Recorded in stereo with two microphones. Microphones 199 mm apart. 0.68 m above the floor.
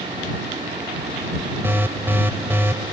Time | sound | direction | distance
1.6 | an alarm | 10° right (ahead or behind) | ?